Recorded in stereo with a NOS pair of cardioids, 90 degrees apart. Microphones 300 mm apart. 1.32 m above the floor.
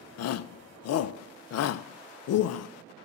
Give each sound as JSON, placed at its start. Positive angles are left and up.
{"t": 0.2, "sound": "a shout", "azimuth_deg": 60, "distance_m": 0.6}